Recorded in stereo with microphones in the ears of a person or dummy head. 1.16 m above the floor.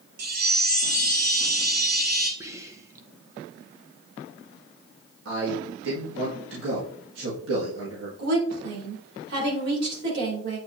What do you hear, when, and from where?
0.2 s a chime: 55° right (ahead or behind), 1.3 m
2.4 s whispering: 15° right (ahead or behind), 0.7 m
5.2 s a man speaking: 75° right (ahead or behind), 2 m
8.2 s a woman speaking: 65° right (ahead or behind), 3.5 m